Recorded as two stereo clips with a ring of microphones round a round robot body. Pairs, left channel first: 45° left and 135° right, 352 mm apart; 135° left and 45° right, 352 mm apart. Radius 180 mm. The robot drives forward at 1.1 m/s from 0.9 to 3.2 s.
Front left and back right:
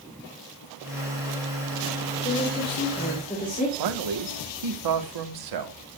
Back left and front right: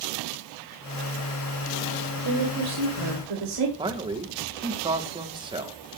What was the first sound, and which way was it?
A woman speaking, 15° right.